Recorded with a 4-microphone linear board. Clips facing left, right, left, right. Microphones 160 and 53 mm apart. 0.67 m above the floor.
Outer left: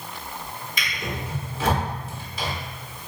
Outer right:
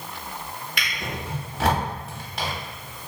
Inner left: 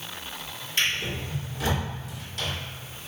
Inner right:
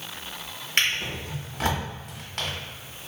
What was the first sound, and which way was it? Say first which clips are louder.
A drawer: outer left 1 dB, inner right 2 dB; 75° right (ahead or behind).